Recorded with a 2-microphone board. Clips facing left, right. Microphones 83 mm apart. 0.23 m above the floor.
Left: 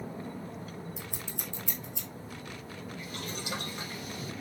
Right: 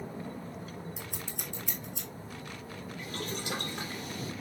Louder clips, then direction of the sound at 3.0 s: Right 4 dB; 80° right.